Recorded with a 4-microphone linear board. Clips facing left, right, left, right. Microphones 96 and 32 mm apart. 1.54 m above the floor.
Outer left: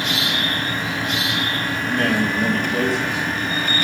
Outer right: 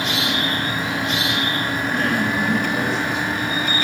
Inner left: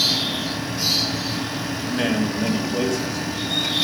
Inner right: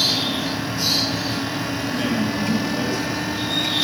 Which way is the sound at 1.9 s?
65° left (ahead or behind).